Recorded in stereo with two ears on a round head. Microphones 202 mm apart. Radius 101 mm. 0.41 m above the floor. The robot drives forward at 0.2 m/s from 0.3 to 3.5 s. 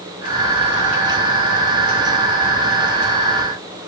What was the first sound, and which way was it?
Only background noise.